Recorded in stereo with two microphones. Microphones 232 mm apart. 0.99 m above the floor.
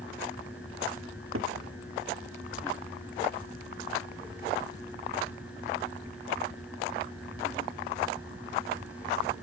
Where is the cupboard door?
70° right (ahead or behind), 1.7 m.